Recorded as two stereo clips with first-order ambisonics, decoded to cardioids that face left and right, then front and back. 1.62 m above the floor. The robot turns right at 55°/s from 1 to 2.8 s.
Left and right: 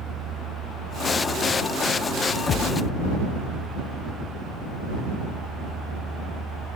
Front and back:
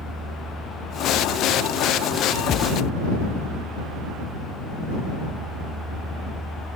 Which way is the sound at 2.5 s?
55° left.